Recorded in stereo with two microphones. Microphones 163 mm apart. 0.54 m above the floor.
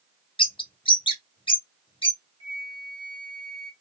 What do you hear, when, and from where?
0.4 s a bird: 30° left (ahead or behind), 0.8 m
2.4 s a flute: 30° left (ahead or behind), 1.0 m